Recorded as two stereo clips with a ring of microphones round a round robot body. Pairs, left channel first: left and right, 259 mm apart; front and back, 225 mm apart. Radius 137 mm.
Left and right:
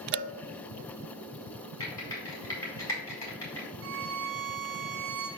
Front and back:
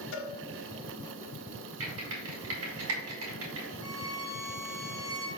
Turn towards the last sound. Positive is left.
turn(degrees=-110)